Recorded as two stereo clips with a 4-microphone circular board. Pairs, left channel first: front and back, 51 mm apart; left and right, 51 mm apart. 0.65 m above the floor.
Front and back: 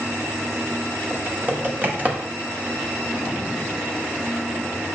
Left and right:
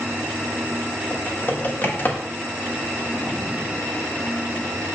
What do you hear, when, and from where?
1.1 s typing on a keyboard: 130° left, 1.4 m